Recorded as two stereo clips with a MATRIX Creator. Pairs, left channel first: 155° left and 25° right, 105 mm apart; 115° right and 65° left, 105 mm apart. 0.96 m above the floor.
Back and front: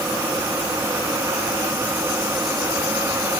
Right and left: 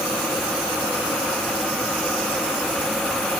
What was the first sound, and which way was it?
Only background noise.